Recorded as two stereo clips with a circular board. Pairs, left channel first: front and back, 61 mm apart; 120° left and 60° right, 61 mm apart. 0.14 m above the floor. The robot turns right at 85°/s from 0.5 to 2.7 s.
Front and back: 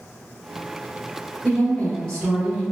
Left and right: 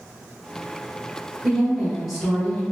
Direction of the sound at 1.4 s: 20° right.